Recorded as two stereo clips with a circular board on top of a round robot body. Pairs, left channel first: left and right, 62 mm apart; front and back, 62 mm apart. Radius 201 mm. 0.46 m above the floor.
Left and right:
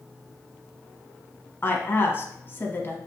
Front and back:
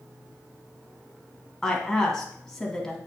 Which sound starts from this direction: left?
A woman speaking, at 1.6 s.